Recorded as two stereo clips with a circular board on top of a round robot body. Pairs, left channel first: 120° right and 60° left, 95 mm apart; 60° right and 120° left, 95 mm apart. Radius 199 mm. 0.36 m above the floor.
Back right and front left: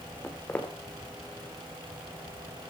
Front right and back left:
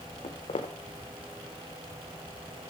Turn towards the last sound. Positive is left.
turn(degrees=-45)